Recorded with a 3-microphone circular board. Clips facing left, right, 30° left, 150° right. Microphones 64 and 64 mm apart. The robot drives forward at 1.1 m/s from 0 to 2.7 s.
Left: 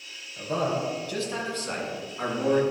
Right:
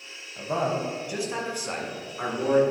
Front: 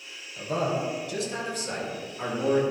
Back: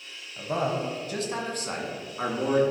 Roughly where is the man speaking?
Right.